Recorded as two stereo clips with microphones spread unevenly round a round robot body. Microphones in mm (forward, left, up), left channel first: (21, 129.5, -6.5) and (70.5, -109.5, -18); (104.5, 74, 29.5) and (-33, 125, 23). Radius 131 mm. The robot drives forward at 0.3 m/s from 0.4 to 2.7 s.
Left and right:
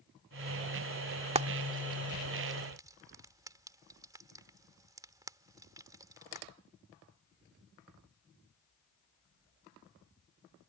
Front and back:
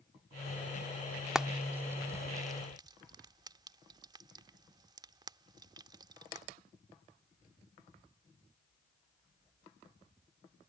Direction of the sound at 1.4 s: 120° right.